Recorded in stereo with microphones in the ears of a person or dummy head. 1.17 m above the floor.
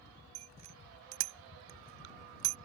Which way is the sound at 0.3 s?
80° right.